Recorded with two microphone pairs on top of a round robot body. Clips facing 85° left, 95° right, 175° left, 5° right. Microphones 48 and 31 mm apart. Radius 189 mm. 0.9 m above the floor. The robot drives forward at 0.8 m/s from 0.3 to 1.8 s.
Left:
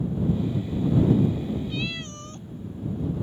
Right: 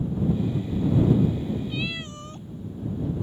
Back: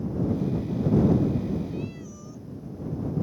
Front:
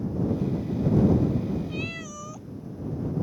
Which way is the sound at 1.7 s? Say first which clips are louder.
Even, front 2 dB; 15° right.